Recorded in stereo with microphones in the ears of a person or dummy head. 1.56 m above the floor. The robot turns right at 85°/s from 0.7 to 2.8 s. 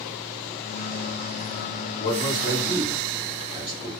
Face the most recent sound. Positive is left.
turn(degrees=-155)